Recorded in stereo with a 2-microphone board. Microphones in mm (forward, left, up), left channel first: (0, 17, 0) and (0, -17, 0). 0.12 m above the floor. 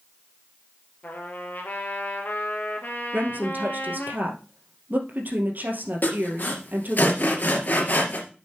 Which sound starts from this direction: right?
A woman speaking, at 3.1 s.